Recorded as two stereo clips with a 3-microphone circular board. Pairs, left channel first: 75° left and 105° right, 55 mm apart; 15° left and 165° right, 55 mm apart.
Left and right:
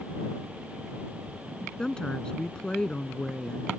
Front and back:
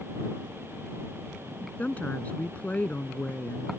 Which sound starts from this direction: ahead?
A woman speaking, at 1.8 s.